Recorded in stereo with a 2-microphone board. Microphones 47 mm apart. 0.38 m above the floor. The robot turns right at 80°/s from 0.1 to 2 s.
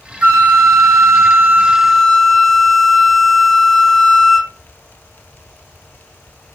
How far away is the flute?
About 0.7 m.